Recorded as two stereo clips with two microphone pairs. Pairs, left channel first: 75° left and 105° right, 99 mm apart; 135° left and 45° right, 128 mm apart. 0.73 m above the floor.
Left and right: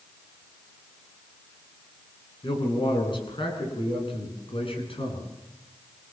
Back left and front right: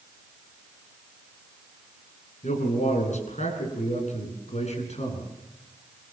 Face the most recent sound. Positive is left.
turn(degrees=100)